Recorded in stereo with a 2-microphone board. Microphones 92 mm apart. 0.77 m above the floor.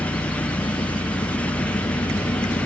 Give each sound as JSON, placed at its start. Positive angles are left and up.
{"t": 0.0, "sound": "an engine running", "side_deg": 80}